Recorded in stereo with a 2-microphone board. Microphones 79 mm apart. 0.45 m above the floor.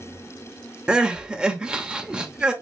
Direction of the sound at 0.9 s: 10° right (ahead or behind).